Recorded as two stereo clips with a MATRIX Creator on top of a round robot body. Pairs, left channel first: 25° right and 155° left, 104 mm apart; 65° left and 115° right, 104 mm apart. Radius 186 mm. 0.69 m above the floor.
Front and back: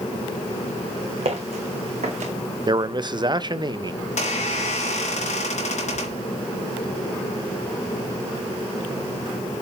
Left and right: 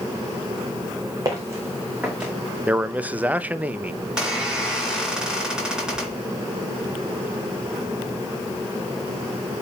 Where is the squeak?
30° right, 3.5 m.